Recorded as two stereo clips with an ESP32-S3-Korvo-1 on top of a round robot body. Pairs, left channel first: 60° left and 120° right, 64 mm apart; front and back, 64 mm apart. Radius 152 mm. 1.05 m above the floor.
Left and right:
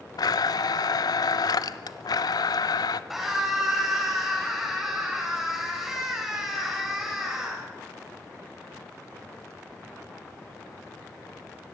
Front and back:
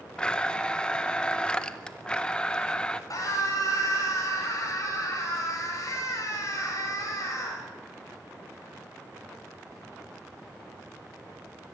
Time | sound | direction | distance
0.2 | a blender | 75° left | 0.8 m
3.1 | a scream | 35° right | 8 m